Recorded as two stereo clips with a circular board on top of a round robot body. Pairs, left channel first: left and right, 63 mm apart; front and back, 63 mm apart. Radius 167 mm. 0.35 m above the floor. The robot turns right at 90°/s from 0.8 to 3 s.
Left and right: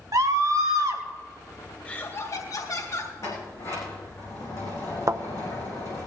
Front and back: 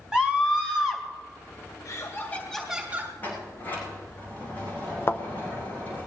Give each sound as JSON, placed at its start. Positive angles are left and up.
{"t": 0.1, "sound": "a scream", "azimuth_deg": -100, "distance_m": 3.5}
{"t": 1.9, "sound": "laughter", "azimuth_deg": 20, "distance_m": 2.5}
{"t": 3.2, "sound": "a sliding door", "azimuth_deg": 65, "distance_m": 6.0}
{"t": 5.1, "sound": "a thud", "azimuth_deg": -50, "distance_m": 0.8}